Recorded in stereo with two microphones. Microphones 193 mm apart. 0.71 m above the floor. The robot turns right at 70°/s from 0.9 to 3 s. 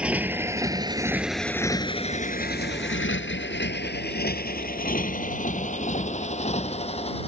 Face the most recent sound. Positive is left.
turn(degrees=30)  # may be behind; listen again after turning